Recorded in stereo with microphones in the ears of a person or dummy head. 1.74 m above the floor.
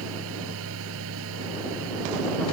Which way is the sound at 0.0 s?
80° right.